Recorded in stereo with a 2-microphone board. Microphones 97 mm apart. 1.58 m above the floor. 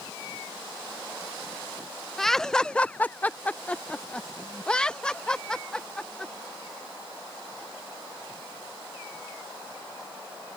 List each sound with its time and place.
2.2 s laughter: 5° left (ahead or behind); by 6.3 s 10° left (ahead or behind)